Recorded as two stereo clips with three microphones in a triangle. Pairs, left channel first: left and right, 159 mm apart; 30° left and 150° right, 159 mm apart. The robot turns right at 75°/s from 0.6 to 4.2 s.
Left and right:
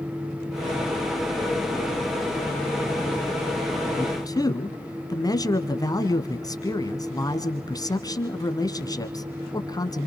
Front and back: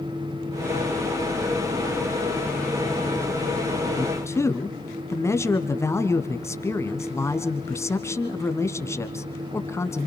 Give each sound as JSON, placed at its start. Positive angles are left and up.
{"t": 4.0, "sound": "a man speaking", "azimuth_deg": 55, "distance_m": 1.6}